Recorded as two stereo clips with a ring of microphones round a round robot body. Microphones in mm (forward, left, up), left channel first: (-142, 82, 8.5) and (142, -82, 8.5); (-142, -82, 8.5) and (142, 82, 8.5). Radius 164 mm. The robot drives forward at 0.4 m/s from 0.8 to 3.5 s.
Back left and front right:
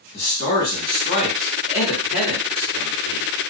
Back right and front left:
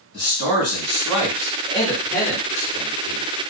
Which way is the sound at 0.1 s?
100° left.